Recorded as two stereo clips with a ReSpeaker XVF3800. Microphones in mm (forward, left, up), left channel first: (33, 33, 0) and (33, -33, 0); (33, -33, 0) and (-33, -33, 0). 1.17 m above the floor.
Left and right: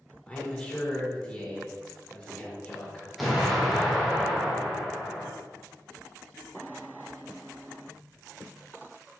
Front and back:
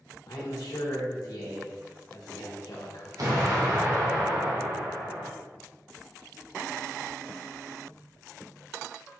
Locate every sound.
0.3 s a man speaking: 15° left, 1.2 m
3.2 s an explosion: straight behind, 1.0 m